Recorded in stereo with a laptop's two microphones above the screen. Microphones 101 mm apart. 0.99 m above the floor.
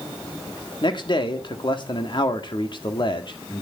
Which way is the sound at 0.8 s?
50° left (ahead or behind).